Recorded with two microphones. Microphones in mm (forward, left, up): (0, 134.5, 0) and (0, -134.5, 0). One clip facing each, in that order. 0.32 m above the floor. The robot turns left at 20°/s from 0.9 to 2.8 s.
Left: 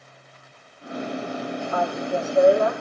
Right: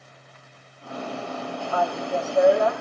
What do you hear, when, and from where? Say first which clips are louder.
1.7 s a woman speaking: even; 10° right (ahead or behind), 8 m; by 2.7 s 10° left (ahead or behind), 8 m